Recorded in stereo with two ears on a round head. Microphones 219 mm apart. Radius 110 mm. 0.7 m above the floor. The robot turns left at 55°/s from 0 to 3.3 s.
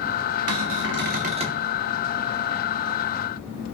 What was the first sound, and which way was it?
A cupboard door, 100° right.